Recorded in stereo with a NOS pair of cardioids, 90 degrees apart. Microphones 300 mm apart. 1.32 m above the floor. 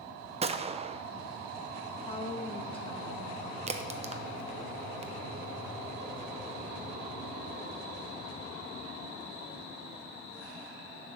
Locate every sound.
0.4 s a gunshot: 20° right, 0.5 m
2.1 s a woman speaking: 15° left, 1.6 m
3.7 s a crack: 20° right, 0.8 m